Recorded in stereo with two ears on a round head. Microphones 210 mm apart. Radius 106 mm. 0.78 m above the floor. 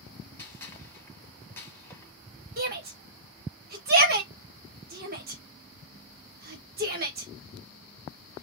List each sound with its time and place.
0.4 s a gunshot: 10° left (ahead or behind), 1.4 m
2.6 s a shout: 40° right (ahead or behind), 1.2 m